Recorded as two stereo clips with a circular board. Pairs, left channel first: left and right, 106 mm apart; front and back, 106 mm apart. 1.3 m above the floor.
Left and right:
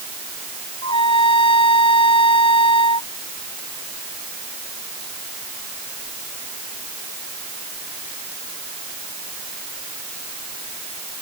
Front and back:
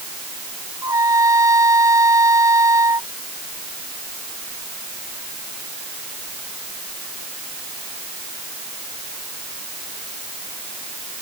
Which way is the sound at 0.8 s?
120° left.